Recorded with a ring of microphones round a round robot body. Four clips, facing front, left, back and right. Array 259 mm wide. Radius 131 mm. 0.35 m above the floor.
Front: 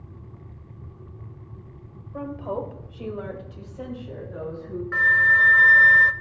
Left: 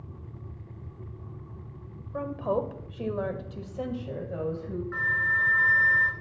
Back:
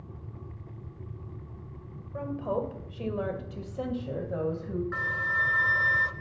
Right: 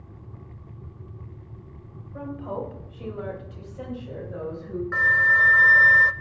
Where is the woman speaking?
70° left, 1.7 m; by 4.8 s 160° left, 2.5 m.